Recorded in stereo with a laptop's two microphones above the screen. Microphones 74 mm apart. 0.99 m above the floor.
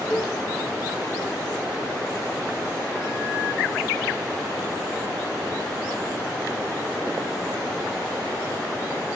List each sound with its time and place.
0.1 s a cowbell: 15° left (ahead or behind), 3.5 m